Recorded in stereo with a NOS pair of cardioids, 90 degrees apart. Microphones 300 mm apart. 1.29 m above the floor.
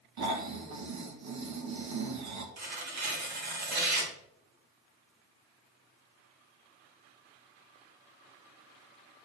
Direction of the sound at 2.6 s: 60° right.